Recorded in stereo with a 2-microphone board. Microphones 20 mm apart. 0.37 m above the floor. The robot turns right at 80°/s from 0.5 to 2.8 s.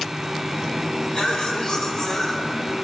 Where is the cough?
80° left, 3.5 m; by 2.7 s 150° right, 3.5 m.